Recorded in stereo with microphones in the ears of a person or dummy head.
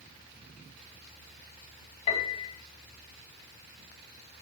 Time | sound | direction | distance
2.1 | a piano | 30° left (ahead or behind) | 1.7 m